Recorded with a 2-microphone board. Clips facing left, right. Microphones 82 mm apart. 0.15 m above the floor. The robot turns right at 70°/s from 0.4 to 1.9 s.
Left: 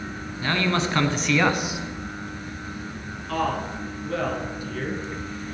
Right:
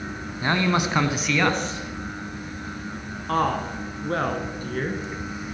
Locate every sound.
0.4 s a man speaking: 25° right (ahead or behind), 1.1 m; by 1.8 s 10° left (ahead or behind), 1.1 m
3.3 s a woman speaking: 45° right (ahead or behind), 1.8 m